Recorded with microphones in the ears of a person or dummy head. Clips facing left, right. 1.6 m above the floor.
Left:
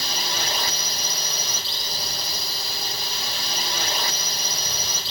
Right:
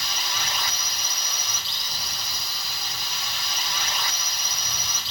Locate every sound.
0.0 s a drone: 30° left (ahead or behind)